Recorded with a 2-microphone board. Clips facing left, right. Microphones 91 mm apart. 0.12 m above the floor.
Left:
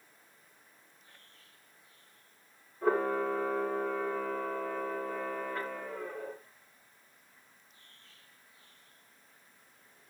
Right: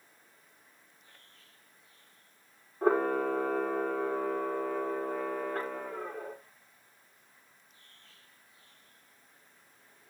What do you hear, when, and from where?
2.8 s a camera shutter: 60° right (ahead or behind), 5.5 m